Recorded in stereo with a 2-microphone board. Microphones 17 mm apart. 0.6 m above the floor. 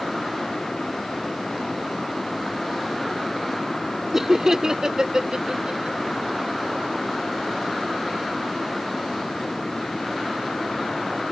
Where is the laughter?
20° right (ahead or behind); by 6.0 s 55° right (ahead or behind).